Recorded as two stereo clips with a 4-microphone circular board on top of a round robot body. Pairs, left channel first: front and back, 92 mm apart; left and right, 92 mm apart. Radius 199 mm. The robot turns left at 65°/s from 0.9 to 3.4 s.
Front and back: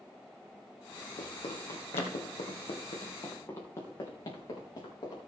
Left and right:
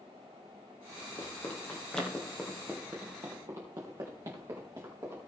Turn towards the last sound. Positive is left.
turn(degrees=-40)